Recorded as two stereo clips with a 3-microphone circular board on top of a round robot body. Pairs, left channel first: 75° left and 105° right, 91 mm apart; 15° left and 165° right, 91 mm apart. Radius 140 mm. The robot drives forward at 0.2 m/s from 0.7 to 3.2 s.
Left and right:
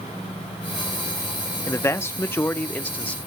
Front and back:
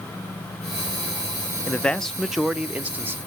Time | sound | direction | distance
1.7 | a man speaking | 75° left | 0.5 m